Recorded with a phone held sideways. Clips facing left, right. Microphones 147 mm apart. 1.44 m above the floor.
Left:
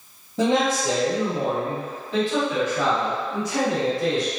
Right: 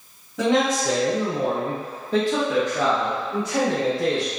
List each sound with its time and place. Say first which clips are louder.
0.4 s a man speaking: even; 20° left (ahead or behind), 0.8 m; by 4.3 s 65° right (ahead or behind), 2 m